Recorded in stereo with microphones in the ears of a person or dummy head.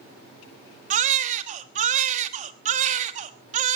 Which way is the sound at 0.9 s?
45° right (ahead or behind).